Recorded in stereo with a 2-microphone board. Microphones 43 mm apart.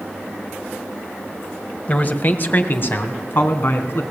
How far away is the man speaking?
About 1.7 m.